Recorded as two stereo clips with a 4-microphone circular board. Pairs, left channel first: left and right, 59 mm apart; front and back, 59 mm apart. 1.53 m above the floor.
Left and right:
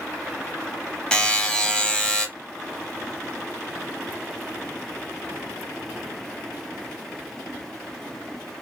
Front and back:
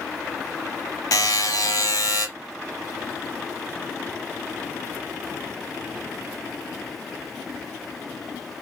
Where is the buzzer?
10° left, 0.8 m.